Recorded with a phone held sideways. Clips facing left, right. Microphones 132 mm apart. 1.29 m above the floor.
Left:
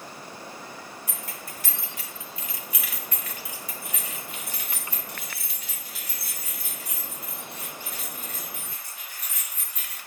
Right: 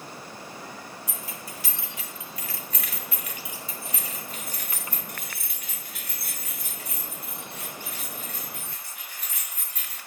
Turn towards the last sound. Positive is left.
turn(degrees=-70)  # may be behind; listen again after turning